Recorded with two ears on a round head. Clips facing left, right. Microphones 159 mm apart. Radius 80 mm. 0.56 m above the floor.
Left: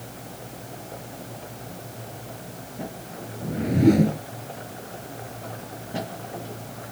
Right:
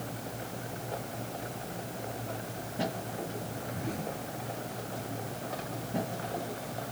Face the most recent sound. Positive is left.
turn(degrees=75)  # may be behind; listen again after turning